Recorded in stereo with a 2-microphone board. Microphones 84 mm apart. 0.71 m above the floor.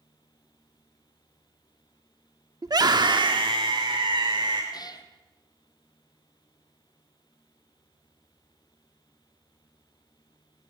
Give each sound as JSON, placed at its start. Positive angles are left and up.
{"t": 2.6, "sound": "a scream", "side_deg": -45, "distance_m": 1.3}
{"t": 4.7, "sound": "a cat meowing", "side_deg": 50, "distance_m": 2.0}